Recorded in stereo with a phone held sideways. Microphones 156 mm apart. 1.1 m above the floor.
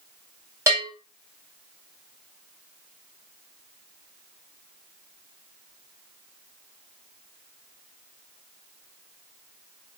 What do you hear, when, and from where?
0.7 s a bell: 20° right (ahead or behind), 1.1 m